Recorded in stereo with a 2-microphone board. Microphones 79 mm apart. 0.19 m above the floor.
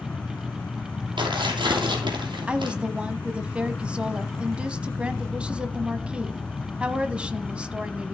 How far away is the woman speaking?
About 1.0 m.